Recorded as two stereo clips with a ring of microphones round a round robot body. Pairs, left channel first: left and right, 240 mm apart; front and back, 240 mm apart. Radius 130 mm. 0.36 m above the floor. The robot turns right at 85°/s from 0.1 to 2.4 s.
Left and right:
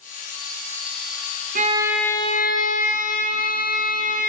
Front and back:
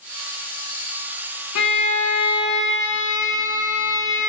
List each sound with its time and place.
1.6 s a violin: 35° right, 1.7 m; by 4.3 s 35° left, 1.7 m